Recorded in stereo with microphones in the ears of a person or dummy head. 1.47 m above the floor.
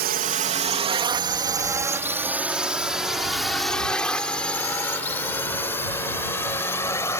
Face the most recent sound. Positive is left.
turn(degrees=10)  # may be behind; listen again after turning